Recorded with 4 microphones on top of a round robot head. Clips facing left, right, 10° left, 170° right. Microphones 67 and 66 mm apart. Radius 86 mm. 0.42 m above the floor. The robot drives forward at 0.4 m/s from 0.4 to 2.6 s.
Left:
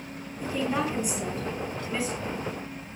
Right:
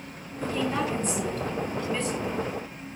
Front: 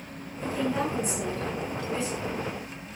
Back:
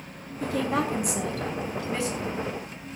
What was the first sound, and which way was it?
A woman speaking, 170° left.